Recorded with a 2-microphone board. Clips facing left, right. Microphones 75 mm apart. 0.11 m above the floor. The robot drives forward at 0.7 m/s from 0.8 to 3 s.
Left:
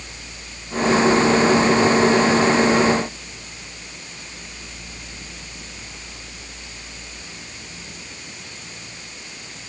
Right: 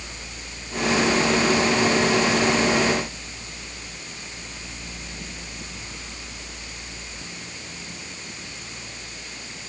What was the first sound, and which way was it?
Only background noise.